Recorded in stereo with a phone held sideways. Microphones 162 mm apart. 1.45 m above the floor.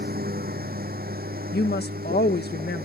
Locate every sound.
0.0 s a lawn mower: 70° right (ahead or behind)
1.5 s a woman speaking: 85° left